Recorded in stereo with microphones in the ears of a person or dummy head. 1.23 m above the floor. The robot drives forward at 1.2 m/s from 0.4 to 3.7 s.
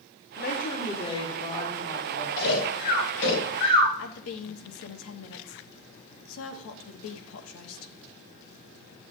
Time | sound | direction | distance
0.4 | a woman speaking | 45° left (ahead or behind) | 1.0 m
2.4 | snoring | 65° left (ahead or behind) | 4.5 m
4.0 | a woman speaking | 85° left | 1.0 m